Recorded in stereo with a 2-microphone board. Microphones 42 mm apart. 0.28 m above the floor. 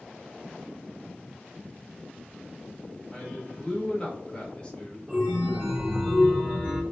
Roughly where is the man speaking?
Left.